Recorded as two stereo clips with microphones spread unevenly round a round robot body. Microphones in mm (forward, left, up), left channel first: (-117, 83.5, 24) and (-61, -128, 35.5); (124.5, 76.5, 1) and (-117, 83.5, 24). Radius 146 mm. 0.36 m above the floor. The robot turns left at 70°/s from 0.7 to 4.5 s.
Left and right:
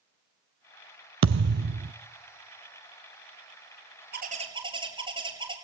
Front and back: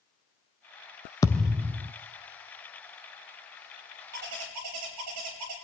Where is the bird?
115° right, 4.5 m; by 5.5 s 145° right, 4.5 m.